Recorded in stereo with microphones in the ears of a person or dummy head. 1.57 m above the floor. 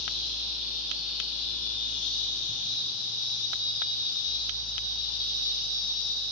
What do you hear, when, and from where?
0.0 s an insect: 40° left (ahead or behind), 6 m